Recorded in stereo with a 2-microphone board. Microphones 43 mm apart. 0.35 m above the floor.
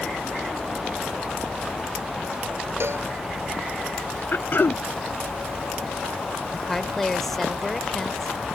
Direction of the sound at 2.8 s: 70° right (ahead or behind).